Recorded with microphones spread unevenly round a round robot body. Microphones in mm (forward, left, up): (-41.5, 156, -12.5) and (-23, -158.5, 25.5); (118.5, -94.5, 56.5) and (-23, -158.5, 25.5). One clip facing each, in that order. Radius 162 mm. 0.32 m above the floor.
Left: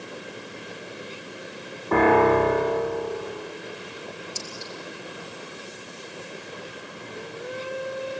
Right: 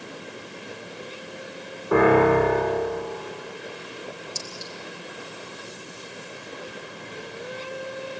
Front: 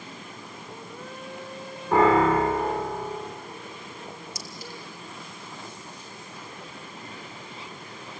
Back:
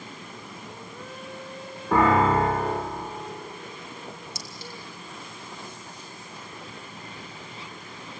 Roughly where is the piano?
Behind.